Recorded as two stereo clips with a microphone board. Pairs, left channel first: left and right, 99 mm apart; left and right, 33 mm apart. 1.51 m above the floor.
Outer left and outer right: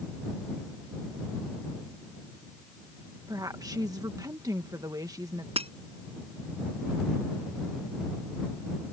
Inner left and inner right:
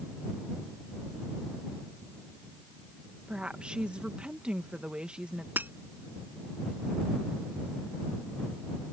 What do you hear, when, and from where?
3.3 s a woman speaking: 35° right (ahead or behind)
5.6 s breaking glass: 70° right (ahead or behind)